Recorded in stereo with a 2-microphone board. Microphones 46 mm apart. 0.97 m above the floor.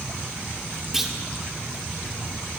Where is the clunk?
5° right (ahead or behind), 2 m.